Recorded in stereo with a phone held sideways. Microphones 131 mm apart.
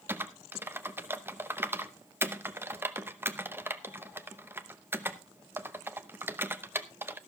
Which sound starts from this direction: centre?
Typing on a keyboard, at 0.1 s.